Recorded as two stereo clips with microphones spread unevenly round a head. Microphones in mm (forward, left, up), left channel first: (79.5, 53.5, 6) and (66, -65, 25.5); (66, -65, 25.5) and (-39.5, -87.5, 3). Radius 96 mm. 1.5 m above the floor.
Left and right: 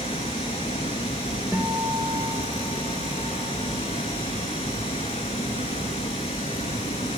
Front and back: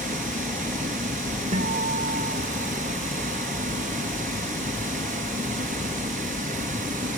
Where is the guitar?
175° left, 2 m.